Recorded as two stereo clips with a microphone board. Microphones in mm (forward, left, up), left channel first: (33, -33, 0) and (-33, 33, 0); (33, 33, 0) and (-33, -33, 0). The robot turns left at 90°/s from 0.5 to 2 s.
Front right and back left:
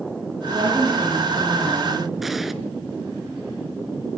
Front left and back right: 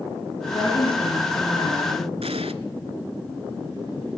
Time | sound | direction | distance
0.5 | a woman speaking | 105° left | 7.5 m
2.2 | an explosion | 135° right | 0.9 m